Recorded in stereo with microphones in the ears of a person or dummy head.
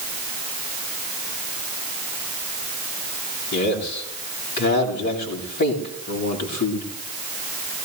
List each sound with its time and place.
3.5 s a man speaking: 55° left (ahead or behind), 9 m